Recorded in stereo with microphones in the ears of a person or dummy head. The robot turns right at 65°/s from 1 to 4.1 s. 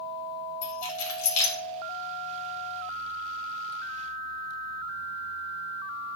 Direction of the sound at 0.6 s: 70° left (ahead or behind).